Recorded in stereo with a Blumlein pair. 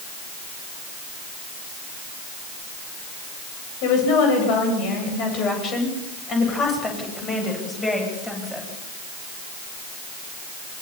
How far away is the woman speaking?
About 10 m.